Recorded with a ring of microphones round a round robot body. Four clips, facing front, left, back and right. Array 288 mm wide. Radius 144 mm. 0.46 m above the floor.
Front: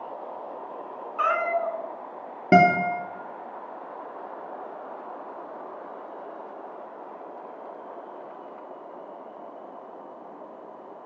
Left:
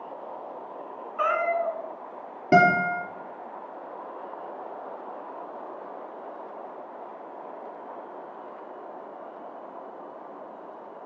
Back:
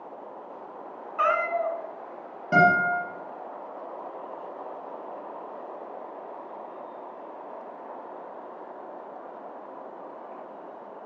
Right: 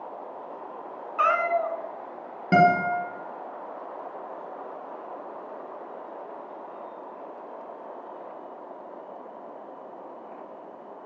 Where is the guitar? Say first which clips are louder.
Even, front 2 dB; 5° right, 3 m.